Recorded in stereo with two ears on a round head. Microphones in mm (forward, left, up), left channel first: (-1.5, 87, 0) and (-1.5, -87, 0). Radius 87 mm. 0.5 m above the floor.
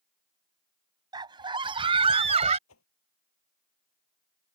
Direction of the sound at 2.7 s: 85° left.